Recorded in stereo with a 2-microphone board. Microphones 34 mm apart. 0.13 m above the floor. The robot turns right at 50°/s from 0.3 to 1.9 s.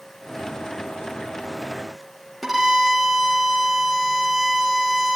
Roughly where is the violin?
Centre.